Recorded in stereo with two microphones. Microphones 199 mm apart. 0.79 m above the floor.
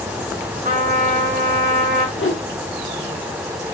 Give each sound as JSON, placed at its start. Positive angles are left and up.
{"t": 0.6, "sound": "a trumpet", "side_deg": -45, "distance_m": 0.7}
{"t": 2.2, "sound": "a whoosh", "side_deg": 85, "distance_m": 0.6}